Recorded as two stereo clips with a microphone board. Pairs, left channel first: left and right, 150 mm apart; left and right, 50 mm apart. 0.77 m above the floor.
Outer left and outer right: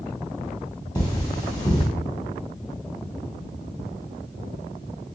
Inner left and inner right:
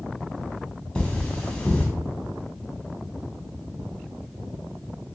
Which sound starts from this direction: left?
Cutlery clinking, at 0.9 s.